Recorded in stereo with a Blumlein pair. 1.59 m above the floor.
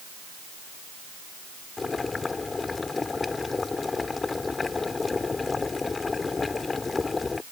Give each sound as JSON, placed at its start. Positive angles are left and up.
{"t": 1.8, "sound": "boiling", "azimuth_deg": 15}